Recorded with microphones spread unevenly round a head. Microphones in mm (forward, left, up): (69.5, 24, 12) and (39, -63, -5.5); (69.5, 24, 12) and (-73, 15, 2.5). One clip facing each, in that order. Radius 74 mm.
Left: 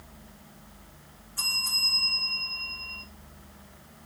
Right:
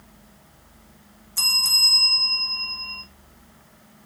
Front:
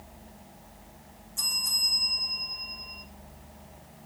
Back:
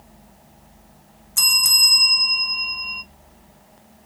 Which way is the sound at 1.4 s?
155° right.